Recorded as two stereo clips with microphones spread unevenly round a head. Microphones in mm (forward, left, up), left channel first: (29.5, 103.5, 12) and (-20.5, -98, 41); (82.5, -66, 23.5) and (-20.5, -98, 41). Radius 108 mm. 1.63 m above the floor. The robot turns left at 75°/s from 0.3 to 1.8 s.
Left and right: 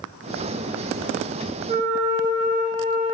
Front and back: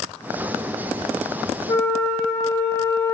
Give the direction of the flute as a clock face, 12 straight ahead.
2 o'clock.